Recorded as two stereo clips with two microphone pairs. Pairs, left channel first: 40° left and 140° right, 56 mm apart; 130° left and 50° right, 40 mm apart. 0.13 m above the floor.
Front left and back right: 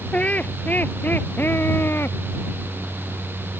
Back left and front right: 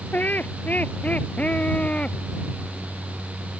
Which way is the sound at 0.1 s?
105° left.